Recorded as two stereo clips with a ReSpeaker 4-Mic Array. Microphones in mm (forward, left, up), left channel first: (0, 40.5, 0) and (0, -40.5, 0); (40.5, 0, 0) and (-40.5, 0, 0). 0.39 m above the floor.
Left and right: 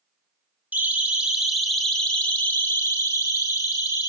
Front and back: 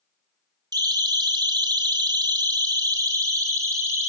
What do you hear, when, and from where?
0.7 s a siren: 155° right, 3 m; by 4.1 s 125° left, 4 m